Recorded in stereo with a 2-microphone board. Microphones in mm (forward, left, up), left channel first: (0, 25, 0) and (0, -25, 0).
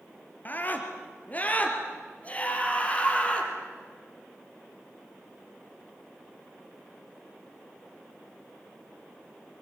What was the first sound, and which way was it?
A scream, 35° left (ahead or behind).